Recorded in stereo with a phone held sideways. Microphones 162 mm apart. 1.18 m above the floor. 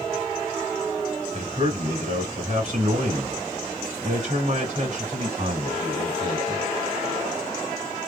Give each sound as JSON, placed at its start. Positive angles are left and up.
{"t": 1.3, "sound": "a man speaking", "side_deg": -50, "distance_m": 2.0}